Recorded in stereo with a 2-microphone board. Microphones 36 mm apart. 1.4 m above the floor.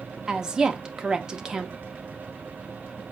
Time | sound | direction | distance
0.3 | a woman speaking | 15° right (ahead or behind) | 0.8 m